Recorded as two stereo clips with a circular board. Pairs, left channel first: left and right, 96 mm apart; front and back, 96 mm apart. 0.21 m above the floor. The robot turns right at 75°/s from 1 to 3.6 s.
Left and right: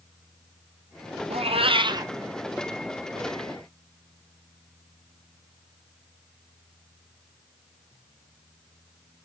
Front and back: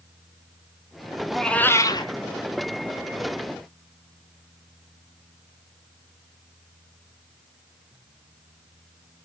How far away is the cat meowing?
About 1.1 m.